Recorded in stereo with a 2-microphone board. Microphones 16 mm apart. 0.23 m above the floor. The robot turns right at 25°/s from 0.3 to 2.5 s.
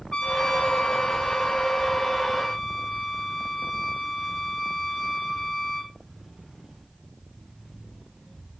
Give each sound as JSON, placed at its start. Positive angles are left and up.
{"t": 0.1, "sound": "a trumpet", "azimuth_deg": 90, "distance_m": 1.0}